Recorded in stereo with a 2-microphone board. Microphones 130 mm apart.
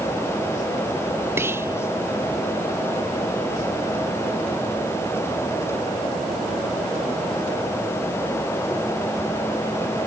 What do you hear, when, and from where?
1.4 s whispering: 15° right (ahead or behind), 0.7 m